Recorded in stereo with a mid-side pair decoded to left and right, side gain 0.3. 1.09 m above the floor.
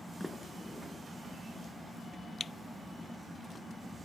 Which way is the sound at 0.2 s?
10° left.